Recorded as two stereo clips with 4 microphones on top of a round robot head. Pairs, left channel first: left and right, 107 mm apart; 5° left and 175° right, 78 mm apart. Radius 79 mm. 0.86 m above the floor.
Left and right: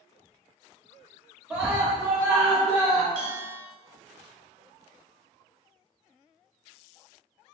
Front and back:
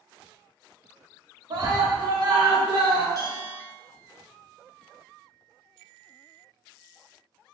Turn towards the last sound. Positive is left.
turn(degrees=-130)